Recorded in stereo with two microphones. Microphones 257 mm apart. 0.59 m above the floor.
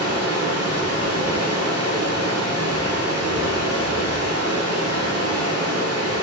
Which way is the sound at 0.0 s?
70° right (ahead or behind).